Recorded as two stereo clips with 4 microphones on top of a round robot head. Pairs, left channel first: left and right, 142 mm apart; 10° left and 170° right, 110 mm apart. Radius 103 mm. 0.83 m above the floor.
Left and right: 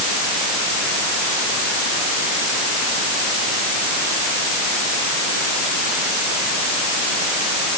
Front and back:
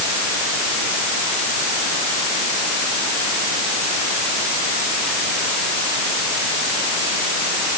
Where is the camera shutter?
I don't hear a camera shutter.